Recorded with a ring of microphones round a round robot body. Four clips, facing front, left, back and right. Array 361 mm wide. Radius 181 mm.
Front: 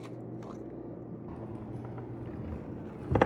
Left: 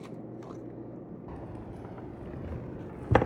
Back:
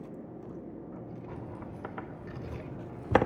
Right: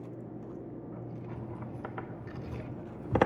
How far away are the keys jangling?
About 3 m.